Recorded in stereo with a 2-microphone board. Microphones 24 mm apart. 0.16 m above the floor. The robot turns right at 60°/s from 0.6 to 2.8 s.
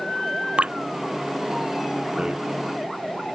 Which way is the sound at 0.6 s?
45° right (ahead or behind).